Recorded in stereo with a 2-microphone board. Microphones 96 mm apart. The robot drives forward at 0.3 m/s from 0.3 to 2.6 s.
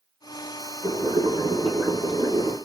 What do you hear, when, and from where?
0.8 s boiling: 60° right (ahead or behind), 1.9 m; by 2.6 s 75° right (ahead or behind), 1.7 m